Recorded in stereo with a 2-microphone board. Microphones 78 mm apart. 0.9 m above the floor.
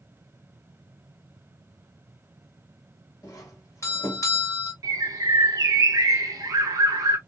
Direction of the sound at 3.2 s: 40° left (ahead or behind).